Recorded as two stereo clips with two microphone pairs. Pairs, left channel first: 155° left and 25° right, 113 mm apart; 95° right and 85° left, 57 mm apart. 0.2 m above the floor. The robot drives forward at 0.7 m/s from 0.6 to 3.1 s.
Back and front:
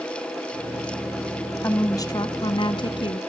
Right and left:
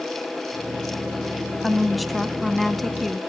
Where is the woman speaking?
170° left, 1.1 m; by 3.2 s 175° left, 1.8 m.